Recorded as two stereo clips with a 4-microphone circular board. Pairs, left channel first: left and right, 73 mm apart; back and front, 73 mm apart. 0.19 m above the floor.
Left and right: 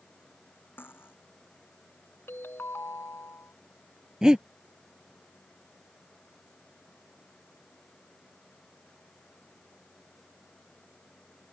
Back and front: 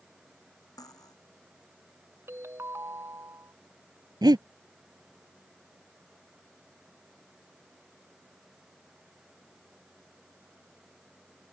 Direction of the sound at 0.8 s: 150° left.